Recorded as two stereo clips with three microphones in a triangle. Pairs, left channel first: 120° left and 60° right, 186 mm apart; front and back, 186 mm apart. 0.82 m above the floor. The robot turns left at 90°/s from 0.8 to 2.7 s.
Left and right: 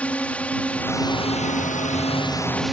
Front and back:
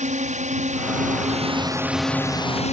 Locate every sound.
0.0 s a drone: 160° right; by 2.7 s 30° left